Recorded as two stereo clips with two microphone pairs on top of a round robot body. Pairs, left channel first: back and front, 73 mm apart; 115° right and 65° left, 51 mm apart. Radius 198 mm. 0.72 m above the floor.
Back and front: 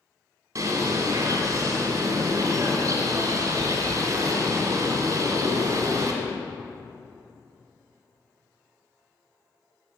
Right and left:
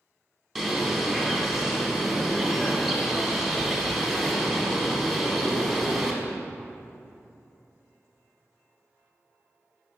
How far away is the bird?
About 1.3 m.